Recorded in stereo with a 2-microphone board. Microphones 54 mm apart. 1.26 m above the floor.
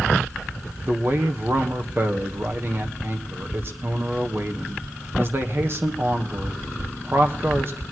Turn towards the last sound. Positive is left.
turn(degrees=-45)  # may be behind; listen again after turning